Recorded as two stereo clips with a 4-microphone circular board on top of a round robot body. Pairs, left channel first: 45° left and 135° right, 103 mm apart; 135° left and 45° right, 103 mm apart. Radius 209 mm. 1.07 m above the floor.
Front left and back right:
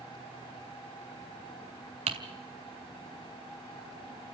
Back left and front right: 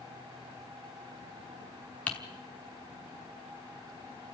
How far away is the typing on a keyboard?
About 1.0 m.